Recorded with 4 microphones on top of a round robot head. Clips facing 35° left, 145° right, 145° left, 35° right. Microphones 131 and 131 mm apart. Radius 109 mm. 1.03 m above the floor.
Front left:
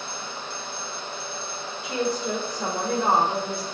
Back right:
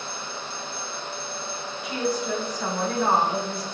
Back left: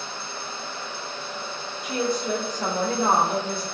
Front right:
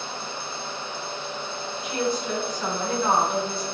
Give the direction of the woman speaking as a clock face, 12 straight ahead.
9 o'clock.